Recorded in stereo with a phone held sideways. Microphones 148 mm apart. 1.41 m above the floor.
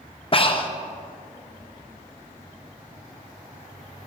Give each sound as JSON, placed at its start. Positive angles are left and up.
{"t": 0.3, "sound": "breathing", "side_deg": 35, "distance_m": 0.7}